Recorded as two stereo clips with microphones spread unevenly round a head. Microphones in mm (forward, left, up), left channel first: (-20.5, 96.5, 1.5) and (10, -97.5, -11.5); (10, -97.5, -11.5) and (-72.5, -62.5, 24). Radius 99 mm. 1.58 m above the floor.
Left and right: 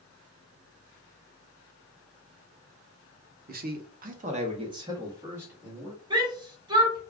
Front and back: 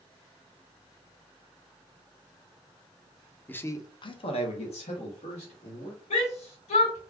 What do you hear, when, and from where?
3.5 s a man speaking: 110° right, 0.6 m; by 6.0 s 5° left, 1.5 m
6.1 s a shout: 10° right, 1.2 m